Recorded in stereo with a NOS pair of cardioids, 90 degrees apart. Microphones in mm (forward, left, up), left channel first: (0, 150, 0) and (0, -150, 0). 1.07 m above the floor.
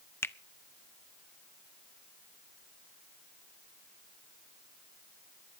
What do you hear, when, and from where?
0.2 s a finger snap: 10° left, 0.6 m